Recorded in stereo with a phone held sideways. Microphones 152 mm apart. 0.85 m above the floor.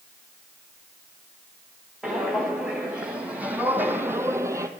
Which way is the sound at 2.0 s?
5° right (ahead or behind).